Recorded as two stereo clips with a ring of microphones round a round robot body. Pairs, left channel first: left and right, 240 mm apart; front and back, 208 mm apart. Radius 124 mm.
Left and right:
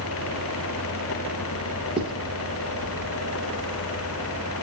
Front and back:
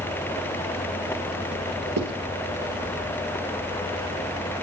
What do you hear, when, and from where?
2.0 s writing: 160° right, 3 m